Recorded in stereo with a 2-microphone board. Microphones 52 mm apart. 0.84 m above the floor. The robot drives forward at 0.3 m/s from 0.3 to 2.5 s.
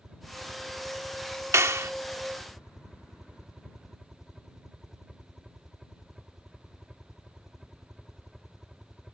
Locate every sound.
0.0 s a helicopter: 5° right (ahead or behind)
1.5 s a clap: 70° right (ahead or behind); by 1.9 s 65° right (ahead or behind)